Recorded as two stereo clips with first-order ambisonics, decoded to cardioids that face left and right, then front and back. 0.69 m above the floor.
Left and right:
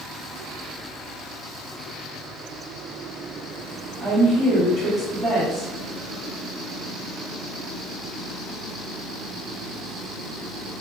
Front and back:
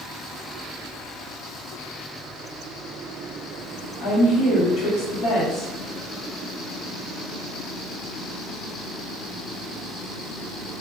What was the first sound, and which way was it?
A woman speaking, 20° right.